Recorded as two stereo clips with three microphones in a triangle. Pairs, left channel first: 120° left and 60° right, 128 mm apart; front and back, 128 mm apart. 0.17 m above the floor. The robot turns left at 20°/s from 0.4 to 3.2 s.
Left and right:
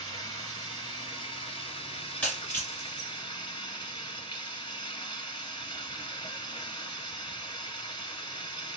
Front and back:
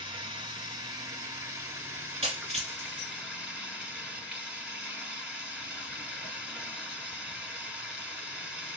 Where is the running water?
155° left, 1.0 m; by 8.8 s 100° left, 1.0 m.